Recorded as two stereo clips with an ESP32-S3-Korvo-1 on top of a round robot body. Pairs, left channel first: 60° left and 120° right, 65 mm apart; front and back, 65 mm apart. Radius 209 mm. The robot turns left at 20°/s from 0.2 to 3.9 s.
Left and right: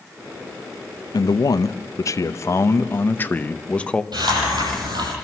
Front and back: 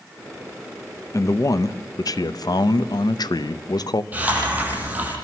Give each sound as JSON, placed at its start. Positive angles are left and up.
{"t": 1.1, "sound": "a man speaking", "azimuth_deg": 40, "distance_m": 0.8}
{"t": 4.1, "sound": "a hiss", "azimuth_deg": -115, "distance_m": 8.5}